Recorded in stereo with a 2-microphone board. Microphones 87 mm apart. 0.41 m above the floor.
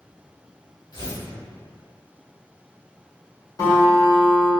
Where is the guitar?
50° left (ahead or behind), 1.3 m.